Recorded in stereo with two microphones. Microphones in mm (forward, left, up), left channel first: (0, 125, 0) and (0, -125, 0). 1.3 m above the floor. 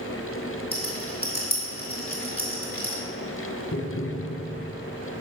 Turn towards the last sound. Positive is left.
turn(degrees=60)  # may be behind; listen again after turning